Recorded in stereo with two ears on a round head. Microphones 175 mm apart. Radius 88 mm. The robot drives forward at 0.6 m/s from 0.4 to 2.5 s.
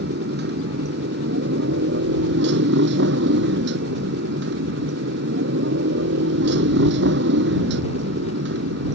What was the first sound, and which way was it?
A motorcycle, 55° right (ahead or behind).